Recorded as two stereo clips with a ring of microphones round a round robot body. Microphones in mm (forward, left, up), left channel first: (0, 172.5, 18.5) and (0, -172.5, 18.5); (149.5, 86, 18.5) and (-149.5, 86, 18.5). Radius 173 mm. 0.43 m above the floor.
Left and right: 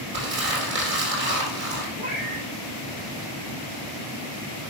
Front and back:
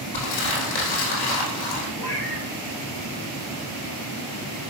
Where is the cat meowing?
80° right, 3 m.